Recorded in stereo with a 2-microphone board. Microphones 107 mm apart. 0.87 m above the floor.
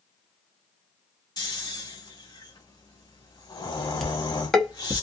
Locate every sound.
1.4 s snoring: 40° left (ahead or behind), 1.5 m
4.0 s dishes clattering: centre (ahead or behind), 0.7 m